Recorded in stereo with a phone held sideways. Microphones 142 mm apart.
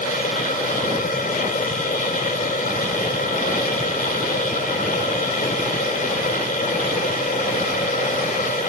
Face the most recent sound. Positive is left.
turn(degrees=80)